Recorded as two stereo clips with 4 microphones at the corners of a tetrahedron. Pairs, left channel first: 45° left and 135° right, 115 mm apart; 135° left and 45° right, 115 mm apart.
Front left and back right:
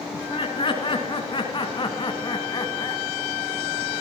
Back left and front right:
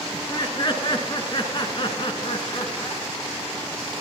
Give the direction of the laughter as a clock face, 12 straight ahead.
9 o'clock.